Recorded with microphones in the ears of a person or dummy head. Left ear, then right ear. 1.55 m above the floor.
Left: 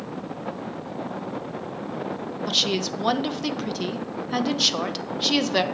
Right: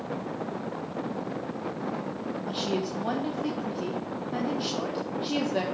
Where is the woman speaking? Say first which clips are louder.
Left 9 dB; 55° left (ahead or behind), 1.0 m.